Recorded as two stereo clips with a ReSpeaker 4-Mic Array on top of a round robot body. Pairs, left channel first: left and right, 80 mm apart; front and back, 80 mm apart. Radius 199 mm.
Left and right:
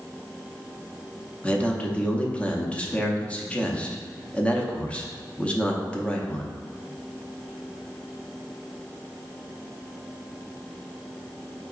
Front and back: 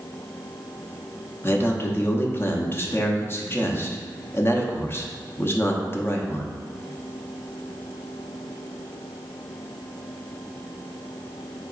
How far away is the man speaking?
About 0.8 m.